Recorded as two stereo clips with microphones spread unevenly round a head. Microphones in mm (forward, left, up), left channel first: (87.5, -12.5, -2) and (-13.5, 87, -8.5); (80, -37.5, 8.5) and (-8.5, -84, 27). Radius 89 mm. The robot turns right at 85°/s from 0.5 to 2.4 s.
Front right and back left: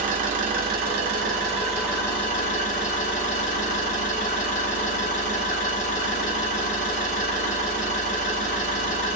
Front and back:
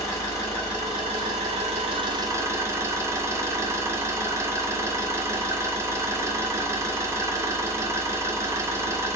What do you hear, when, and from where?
0.0 s an engine running: 105° left, 1.0 m; by 9.2 s 90° right, 1.0 m